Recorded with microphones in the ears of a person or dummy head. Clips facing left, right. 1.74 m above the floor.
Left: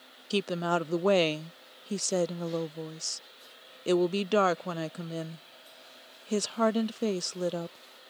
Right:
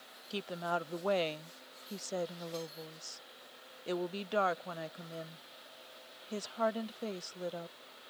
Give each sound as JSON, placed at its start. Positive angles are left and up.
{"t": 0.3, "sound": "a woman speaking", "side_deg": 70}